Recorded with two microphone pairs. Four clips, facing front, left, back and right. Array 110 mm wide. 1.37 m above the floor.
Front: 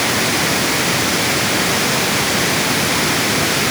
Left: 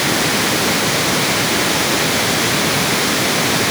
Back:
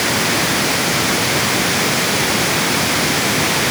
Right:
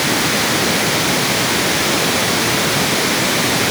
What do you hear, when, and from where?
Only background noise.